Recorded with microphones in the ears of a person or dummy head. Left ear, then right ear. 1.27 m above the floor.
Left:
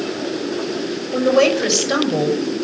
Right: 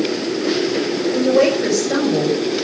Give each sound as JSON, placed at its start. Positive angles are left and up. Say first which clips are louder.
{"t": 1.1, "sound": "a woman speaking", "louder": "left 1 dB", "side_deg": 55, "distance_m": 6.0}